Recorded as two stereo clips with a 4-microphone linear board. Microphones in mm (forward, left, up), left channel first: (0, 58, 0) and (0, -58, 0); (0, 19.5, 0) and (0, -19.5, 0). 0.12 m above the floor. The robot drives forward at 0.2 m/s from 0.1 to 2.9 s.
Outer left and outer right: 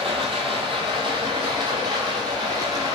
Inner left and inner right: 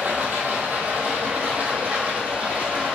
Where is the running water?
60° right (ahead or behind), 0.7 m; by 3.0 s 35° right (ahead or behind), 1.1 m.